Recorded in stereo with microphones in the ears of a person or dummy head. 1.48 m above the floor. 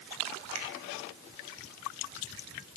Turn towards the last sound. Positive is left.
turn(degrees=-85)